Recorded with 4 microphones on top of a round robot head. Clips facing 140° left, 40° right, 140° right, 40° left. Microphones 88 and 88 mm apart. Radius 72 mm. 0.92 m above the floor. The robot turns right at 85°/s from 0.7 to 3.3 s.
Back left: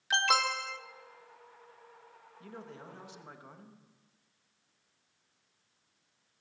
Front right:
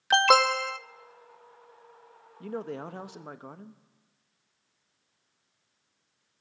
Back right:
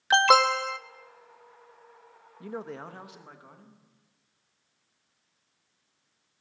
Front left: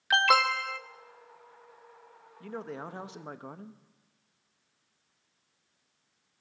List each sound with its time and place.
0.1 s an alarm: 75° right, 0.5 m; by 0.8 s 70° right, 0.5 m
2.4 s a man speaking: 75° right, 1.0 m; by 3.8 s straight ahead, 1.0 m